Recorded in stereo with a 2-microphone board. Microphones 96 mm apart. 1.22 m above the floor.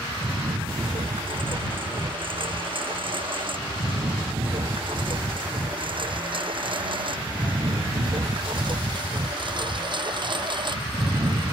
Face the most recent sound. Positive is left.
turn(degrees=-50)  # may be behind; listen again after turning